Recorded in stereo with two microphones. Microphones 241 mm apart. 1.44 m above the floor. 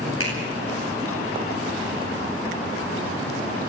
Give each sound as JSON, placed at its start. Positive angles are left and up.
{"t": 0.2, "sound": "a finger snap", "side_deg": 60, "distance_m": 9.5}